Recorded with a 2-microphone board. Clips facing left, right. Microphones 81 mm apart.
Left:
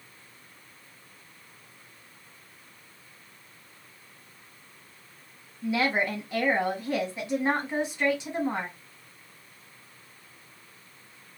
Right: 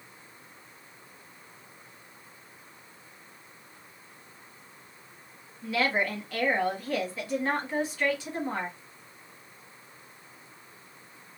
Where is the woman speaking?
20° left (ahead or behind), 1.2 m.